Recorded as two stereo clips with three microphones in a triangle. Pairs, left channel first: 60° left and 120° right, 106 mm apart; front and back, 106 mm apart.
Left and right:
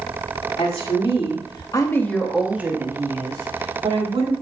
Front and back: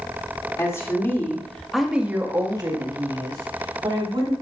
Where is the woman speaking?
55° left, 2.5 m; by 4.3 s 150° right, 3 m.